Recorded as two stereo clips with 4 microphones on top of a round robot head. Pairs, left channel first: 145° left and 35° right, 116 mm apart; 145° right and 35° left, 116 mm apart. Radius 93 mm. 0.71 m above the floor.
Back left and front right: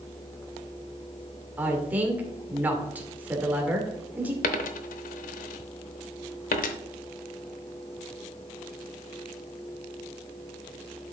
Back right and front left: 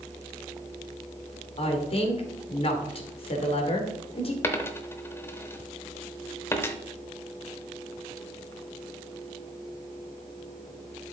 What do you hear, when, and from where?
1.6 s a woman speaking: 110° right, 2.5 m
4.4 s a dropped coin: 140° left, 0.7 m